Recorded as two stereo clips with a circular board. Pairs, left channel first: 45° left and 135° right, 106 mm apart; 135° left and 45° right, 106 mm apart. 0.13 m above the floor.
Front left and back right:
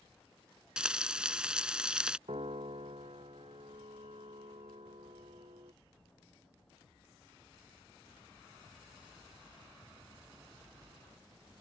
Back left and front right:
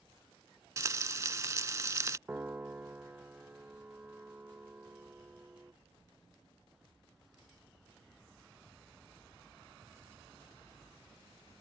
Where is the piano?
115° right.